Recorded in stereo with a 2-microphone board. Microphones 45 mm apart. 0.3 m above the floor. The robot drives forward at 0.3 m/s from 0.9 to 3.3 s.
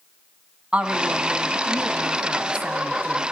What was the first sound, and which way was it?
A woman speaking, 30° right (ahead or behind).